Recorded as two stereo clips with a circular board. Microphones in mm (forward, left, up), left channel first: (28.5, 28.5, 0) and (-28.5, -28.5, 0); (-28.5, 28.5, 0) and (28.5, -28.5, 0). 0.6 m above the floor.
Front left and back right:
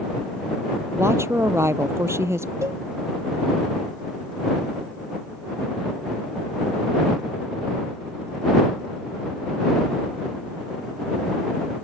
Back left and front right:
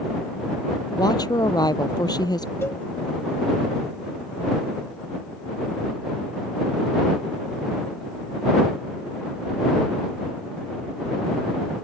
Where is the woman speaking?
170° left.